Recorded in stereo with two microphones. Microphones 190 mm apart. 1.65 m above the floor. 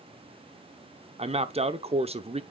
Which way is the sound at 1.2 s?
35° right (ahead or behind).